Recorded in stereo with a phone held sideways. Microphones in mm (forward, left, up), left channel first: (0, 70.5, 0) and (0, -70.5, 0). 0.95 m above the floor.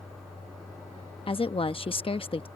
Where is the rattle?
I don't hear a rattle.